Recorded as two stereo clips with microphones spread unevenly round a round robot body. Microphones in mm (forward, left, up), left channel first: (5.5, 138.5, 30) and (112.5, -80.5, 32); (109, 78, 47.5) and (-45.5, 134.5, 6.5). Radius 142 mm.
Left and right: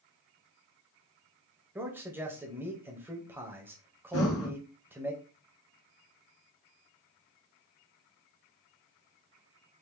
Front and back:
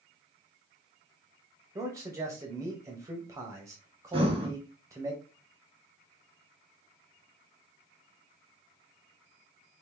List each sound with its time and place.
1.8 s a man speaking: 145° right, 1.1 m
4.1 s breathing: 95° left, 1.8 m